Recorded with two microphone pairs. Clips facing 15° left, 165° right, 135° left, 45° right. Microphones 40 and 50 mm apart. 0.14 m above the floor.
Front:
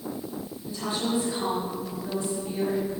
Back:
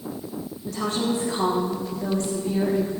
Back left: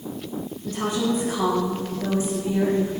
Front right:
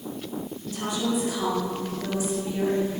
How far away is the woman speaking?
About 6 m.